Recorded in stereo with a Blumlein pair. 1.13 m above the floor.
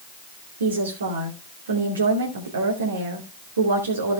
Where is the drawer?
No drawer in this recording.